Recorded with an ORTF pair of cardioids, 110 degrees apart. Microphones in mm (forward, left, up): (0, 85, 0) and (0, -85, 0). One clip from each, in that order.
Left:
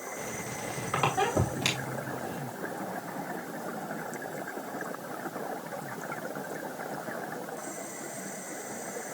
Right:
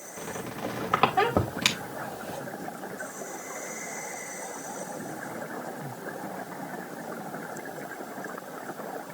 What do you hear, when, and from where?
0.2 s a squeak: 45° right, 2 m